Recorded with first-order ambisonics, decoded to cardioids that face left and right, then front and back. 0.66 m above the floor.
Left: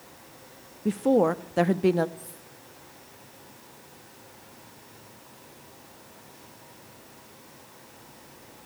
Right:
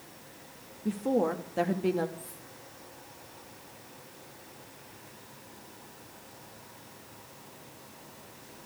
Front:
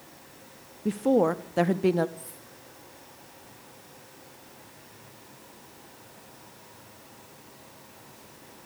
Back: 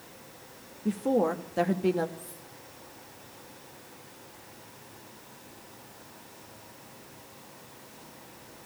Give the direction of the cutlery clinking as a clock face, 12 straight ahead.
11 o'clock.